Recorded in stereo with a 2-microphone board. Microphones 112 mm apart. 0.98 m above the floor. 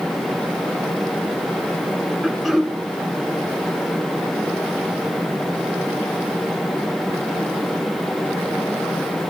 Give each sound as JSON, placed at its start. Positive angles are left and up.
{"t": 2.2, "sound": "throat clearing", "side_deg": 0, "distance_m": 1.0}